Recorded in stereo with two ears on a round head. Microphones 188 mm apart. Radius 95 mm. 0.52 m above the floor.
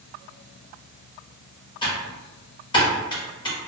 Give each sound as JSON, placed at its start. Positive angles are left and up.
{"t": 1.8, "sound": "typing on a keyboard", "side_deg": 20, "distance_m": 0.9}